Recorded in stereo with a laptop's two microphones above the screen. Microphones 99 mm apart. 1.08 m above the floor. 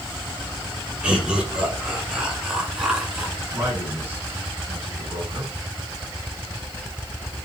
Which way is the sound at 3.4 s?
30° right (ahead or behind).